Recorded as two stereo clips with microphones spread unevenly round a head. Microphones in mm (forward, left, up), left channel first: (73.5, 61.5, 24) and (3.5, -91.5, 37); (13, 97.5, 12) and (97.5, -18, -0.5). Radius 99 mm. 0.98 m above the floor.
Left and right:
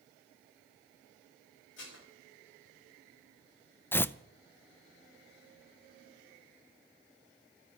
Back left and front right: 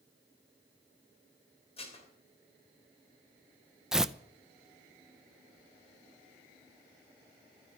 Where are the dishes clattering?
80° left, 3 m.